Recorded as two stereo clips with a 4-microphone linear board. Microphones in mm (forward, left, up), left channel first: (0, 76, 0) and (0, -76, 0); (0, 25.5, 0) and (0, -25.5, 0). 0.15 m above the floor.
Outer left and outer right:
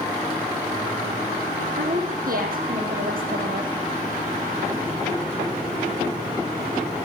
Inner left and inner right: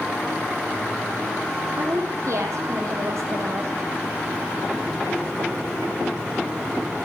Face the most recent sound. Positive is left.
turn(degrees=-65)  # may be behind; listen again after turning